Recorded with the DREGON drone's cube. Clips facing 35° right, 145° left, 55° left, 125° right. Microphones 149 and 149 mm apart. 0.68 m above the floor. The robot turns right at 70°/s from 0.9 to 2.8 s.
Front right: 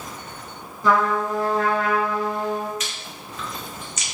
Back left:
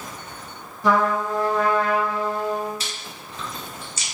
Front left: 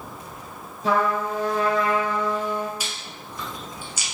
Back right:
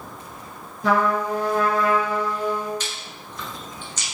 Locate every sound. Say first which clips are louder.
0.8 s a trumpet: even, back right 2 dB; 135° right, 1.5 m; by 2.7 s 10° right, 1.5 m
2.8 s chewing: front right 1 dB, back right 1 dB; 130° left, 0.7 m